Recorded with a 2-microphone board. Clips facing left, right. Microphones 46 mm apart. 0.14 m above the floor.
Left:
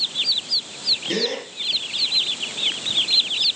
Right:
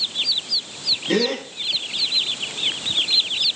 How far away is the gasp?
About 9 m.